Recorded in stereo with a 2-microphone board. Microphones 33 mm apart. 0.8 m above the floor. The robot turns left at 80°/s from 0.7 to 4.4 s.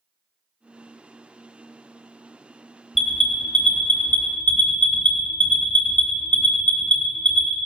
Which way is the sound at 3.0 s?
10° right (ahead or behind).